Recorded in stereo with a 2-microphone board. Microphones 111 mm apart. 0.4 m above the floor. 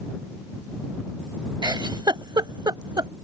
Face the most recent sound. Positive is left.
turn(degrees=-40)  # may be behind; listen again after turning